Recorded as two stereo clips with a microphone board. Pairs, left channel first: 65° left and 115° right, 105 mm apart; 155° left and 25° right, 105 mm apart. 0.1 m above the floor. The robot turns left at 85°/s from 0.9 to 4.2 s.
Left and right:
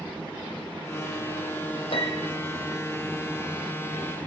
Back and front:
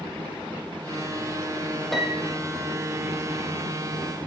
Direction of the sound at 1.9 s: 70° left.